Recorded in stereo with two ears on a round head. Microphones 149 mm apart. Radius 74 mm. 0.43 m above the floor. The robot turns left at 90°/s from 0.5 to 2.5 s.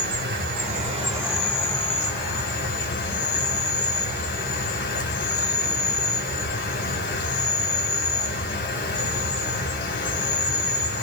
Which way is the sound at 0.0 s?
100° right.